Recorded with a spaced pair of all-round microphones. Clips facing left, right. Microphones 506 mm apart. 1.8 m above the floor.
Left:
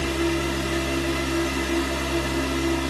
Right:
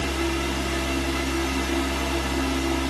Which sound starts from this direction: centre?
A fan, at 0.0 s.